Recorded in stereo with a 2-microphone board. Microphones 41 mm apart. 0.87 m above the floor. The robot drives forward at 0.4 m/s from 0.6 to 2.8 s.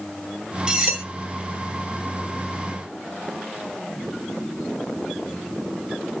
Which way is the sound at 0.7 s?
20° right (ahead or behind).